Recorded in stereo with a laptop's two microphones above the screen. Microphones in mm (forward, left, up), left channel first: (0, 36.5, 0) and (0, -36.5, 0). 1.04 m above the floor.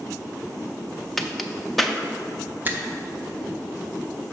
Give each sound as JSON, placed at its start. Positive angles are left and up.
{"t": 1.2, "sound": "a crack", "side_deg": 0, "distance_m": 0.5}
{"t": 2.6, "sound": "a finger snap", "side_deg": -25, "distance_m": 0.6}